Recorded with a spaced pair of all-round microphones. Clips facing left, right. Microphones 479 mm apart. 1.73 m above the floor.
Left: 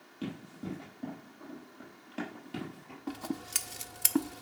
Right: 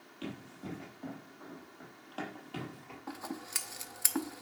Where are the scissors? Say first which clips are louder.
Left 6 dB; 50° left (ahead or behind), 0.5 m.